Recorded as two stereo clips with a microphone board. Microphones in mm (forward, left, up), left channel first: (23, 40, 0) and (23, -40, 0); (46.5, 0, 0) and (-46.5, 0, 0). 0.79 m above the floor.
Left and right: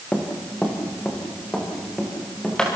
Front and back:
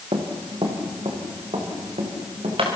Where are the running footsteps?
165° left, 4 m; by 2.7 s 170° left, 8 m.